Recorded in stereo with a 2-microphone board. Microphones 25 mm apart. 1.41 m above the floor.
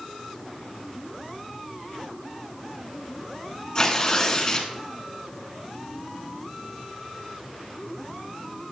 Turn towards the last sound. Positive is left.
turn(degrees=30)  # may be behind; listen again after turning